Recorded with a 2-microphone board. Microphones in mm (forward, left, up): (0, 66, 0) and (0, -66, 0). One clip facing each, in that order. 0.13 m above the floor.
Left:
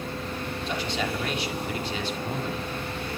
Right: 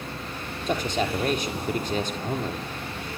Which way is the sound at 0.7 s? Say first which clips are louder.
Right 5 dB; 45° right (ahead or behind).